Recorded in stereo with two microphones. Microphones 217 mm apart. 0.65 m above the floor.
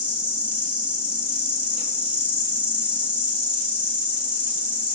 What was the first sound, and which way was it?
An insect, 5° right (ahead or behind).